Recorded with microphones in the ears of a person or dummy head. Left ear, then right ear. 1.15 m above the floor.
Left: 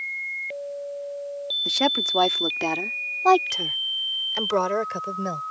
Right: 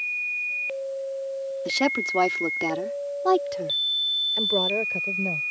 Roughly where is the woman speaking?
Centre.